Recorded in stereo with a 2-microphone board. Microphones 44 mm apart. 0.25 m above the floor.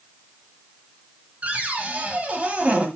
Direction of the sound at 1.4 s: 30° right (ahead or behind).